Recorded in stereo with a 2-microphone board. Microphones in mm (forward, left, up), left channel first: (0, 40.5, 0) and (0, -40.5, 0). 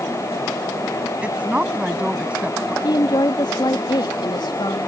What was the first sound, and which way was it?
A woman speaking, 15° right (ahead or behind).